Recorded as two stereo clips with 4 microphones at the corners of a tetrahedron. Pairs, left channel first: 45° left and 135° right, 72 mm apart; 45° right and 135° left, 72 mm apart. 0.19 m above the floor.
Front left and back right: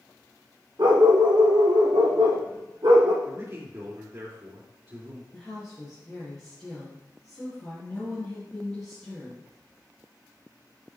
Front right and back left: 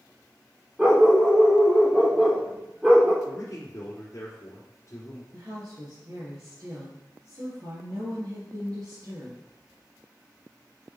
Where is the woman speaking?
120° left, 3 m.